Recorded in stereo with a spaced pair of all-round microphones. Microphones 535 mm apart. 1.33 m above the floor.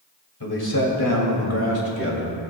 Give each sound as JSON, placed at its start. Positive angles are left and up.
{"t": 0.4, "sound": "a man speaking", "side_deg": 45, "distance_m": 2.5}